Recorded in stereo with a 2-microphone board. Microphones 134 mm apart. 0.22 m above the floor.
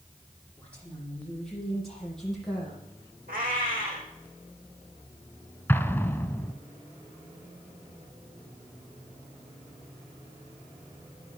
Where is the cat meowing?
80° right, 6.5 m.